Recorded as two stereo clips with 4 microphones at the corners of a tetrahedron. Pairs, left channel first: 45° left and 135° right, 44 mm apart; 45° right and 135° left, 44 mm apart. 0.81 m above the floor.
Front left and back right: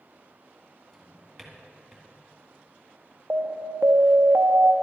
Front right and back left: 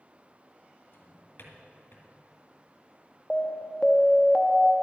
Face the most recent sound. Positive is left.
turn(degrees=-115)